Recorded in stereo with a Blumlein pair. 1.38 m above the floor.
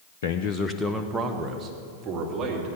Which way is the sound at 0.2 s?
60° left.